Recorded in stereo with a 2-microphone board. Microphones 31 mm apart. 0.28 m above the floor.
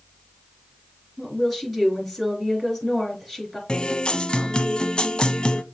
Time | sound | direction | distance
1.2 | a woman speaking | centre (ahead or behind) | 4.5 m
3.7 | a guitar | 35° left (ahead or behind) | 0.6 m